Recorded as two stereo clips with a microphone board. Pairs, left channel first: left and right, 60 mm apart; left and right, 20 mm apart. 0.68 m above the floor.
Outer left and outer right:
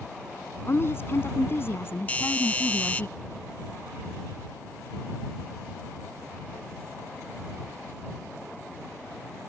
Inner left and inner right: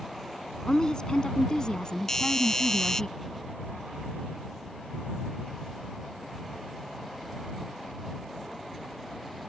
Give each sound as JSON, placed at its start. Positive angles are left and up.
{"t": 0.7, "sound": "a woman speaking", "side_deg": 40}
{"t": 2.1, "sound": "a doorbell", "side_deg": 25}